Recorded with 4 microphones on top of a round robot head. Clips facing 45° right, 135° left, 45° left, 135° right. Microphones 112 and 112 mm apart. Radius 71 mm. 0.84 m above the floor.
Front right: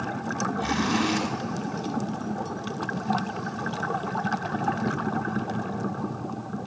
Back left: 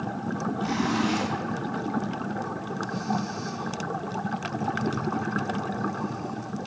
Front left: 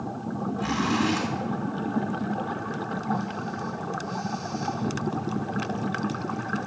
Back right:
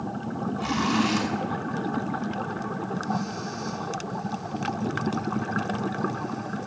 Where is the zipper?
75° right, 2.5 m.